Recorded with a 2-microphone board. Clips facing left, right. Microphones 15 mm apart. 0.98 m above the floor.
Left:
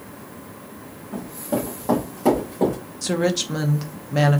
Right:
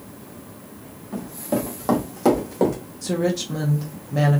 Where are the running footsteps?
30° right (ahead or behind), 1.7 m; by 2.8 s 50° right (ahead or behind), 2 m.